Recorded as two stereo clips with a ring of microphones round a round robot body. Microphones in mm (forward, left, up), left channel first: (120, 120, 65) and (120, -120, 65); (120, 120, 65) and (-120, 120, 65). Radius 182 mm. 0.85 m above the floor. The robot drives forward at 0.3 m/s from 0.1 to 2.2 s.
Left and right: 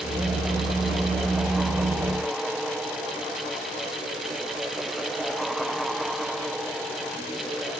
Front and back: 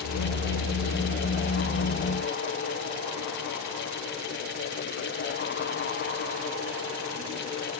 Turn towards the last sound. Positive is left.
No sound to turn to.